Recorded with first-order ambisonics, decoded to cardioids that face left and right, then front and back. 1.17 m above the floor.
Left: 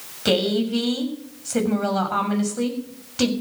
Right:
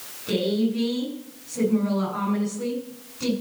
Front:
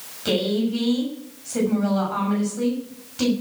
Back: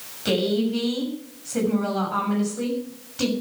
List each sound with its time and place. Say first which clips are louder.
0.2 s a woman speaking: left 4 dB, even; 90° left, 6.5 m